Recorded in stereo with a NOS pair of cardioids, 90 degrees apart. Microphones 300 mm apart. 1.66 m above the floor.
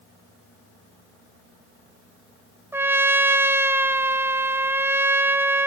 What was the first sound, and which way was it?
A trumpet, 5° right.